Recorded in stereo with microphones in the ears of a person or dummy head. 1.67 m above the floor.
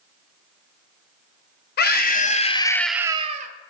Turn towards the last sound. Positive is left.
turn(degrees=-45)  # may be behind; listen again after turning